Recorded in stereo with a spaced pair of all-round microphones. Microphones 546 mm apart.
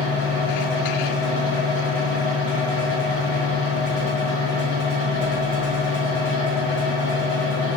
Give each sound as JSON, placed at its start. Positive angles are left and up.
{"t": 0.0, "sound": "a fan", "side_deg": 0, "distance_m": 1.8}